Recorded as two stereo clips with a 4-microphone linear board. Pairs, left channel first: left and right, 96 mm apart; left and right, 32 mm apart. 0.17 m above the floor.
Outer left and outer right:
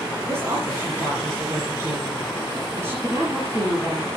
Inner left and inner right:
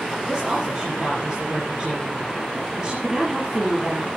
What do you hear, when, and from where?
0.3 s a woman speaking: 25° right (ahead or behind), 5 m